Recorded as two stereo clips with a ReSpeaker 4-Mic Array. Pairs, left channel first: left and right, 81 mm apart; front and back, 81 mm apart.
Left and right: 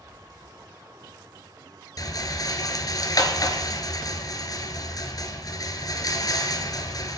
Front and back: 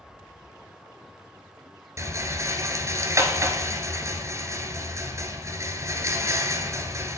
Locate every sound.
2.0 s a rattle: 130° left, 2 m